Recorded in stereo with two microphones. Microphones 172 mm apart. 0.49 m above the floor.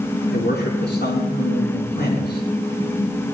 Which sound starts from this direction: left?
A man speaking, at 0.3 s.